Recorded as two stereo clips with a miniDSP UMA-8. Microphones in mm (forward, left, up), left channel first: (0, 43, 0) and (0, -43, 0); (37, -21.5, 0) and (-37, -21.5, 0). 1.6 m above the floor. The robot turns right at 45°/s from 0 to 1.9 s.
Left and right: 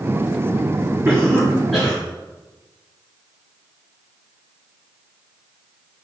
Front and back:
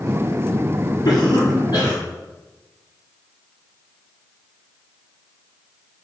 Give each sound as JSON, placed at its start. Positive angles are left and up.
{"t": 1.1, "sound": "a cough", "azimuth_deg": -25, "distance_m": 3.5}